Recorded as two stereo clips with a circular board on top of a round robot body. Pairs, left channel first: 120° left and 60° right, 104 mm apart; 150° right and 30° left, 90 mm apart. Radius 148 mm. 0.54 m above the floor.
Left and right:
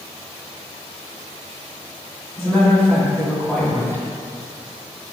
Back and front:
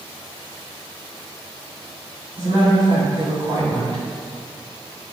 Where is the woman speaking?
55° left, 1.7 m.